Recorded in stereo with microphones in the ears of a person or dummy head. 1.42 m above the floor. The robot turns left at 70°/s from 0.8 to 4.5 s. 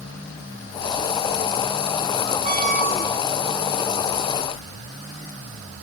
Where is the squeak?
35° right, 2.5 m; by 3.2 s 90° right, 2.5 m.